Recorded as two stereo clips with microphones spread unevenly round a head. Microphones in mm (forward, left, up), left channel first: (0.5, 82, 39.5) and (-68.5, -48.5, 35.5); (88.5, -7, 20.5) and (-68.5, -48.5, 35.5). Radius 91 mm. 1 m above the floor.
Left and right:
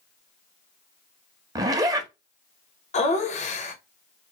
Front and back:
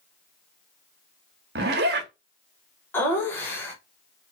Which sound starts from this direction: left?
Laughter, at 2.9 s.